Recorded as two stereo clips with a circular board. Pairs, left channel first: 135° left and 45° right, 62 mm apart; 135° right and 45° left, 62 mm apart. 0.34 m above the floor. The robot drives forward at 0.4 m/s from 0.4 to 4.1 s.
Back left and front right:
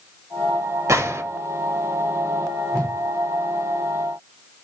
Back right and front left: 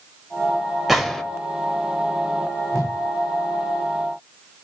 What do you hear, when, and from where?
0.9 s a gunshot: 40° right, 0.6 m; by 1.2 s 50° right, 0.6 m
2.7 s a whoosh: 165° right, 3 m